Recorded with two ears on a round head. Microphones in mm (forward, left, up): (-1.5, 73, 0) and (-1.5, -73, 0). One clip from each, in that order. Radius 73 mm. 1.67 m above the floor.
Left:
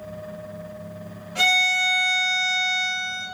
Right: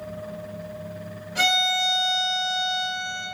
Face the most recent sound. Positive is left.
turn(degrees=0)  # may be behind; listen again after turning